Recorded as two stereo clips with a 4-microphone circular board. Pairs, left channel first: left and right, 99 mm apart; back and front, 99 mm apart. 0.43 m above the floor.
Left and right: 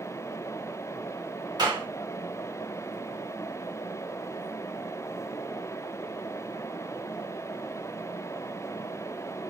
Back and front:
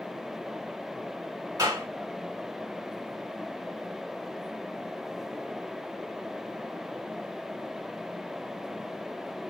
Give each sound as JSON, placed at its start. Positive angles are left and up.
{"t": 1.6, "sound": "a clap", "azimuth_deg": -50, "distance_m": 2.5}